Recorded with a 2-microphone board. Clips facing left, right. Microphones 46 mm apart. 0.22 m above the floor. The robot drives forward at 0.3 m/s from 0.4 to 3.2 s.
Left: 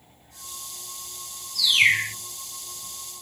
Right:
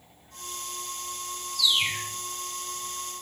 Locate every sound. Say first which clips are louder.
1.6 s a bird: left 7 dB; 70° left (ahead or behind), 0.6 m; by 2.1 s 85° left, 0.5 m